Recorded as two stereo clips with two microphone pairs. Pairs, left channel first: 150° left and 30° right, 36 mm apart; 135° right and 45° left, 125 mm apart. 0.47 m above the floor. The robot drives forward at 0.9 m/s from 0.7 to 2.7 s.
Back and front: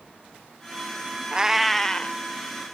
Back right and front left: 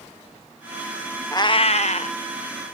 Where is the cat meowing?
85° right, 0.5 m; by 2.2 s 150° right, 0.9 m.